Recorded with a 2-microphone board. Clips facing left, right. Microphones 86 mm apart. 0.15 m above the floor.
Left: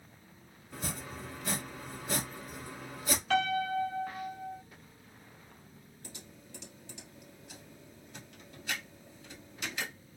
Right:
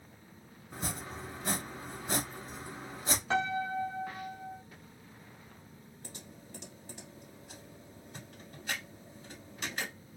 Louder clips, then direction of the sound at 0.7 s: Right 1 dB; 30° right (ahead or behind).